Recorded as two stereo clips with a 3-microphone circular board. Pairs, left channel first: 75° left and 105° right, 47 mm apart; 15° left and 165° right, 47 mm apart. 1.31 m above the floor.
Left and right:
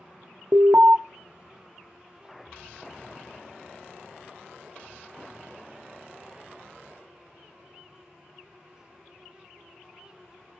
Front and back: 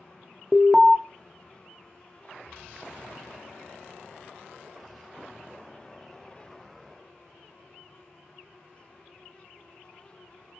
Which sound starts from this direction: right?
An alarm, at 0.5 s.